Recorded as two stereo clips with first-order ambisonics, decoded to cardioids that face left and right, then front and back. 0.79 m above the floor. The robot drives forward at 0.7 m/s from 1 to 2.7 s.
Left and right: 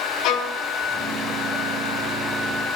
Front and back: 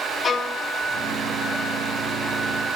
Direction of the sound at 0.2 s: 70° left.